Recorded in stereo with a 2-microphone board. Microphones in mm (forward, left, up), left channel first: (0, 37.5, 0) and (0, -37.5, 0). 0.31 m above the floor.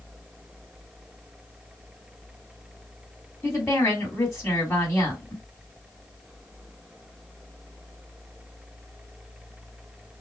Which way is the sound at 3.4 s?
35° left (ahead or behind).